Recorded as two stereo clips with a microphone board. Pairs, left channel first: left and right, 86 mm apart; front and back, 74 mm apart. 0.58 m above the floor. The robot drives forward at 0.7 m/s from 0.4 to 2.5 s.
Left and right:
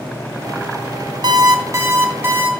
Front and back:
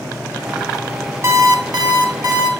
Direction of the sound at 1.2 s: 125° right.